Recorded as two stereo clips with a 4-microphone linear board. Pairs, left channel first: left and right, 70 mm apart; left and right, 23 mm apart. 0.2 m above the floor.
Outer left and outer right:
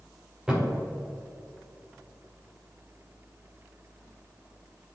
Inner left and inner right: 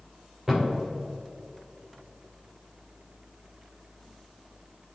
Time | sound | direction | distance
0.5 | a thud | 10° right (ahead or behind) | 3 m